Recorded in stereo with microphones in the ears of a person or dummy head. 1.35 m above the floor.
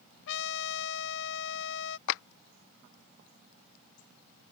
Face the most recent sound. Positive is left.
turn(degrees=75)  # may be behind; listen again after turning